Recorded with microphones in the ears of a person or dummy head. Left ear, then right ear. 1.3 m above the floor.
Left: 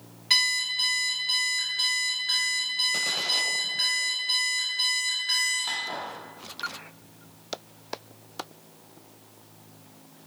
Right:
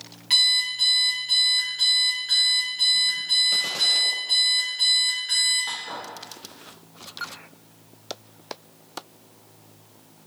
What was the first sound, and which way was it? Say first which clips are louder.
An alarm clock: right 4 dB; 5° right (ahead or behind).